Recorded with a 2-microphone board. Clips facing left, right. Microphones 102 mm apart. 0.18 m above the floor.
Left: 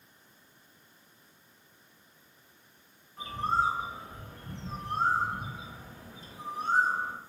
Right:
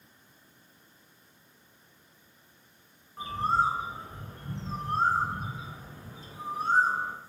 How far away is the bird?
About 1.6 m.